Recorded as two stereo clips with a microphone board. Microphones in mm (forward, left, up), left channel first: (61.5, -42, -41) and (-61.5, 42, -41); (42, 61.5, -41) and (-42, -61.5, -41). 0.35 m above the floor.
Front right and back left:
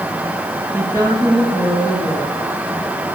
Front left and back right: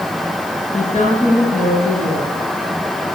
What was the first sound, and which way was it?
A woman speaking, 80° left.